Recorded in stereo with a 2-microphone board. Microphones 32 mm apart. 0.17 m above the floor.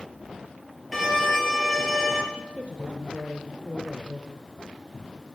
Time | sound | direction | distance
0.9 | a violin | 10° left (ahead or behind) | 3 m
2.3 | a woman speaking | 50° right (ahead or behind) | 2.5 m